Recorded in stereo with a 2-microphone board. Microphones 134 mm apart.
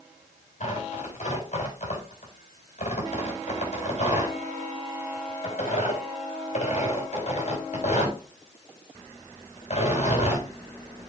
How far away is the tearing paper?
About 6.5 m.